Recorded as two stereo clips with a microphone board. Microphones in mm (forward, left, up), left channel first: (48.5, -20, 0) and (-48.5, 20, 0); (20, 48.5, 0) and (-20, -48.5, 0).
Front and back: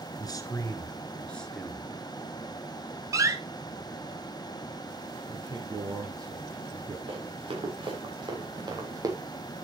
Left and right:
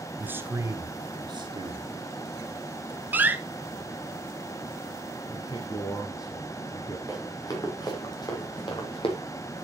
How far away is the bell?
No bell in this recording.